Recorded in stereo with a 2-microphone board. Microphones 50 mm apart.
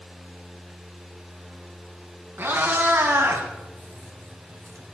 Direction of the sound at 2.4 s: 45° right (ahead or behind).